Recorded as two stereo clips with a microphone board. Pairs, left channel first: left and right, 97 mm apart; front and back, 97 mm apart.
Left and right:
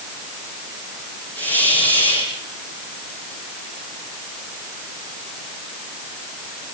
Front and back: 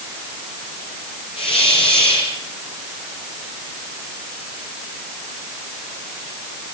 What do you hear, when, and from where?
1.4 s a hiss: 20° left, 10 m